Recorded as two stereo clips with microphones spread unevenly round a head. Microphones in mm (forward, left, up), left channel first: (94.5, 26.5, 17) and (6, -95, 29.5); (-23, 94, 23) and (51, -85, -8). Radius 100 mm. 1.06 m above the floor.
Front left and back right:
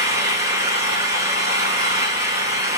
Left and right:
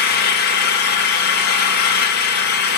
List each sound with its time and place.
0.0 s an engine running: 160° left, 1.3 m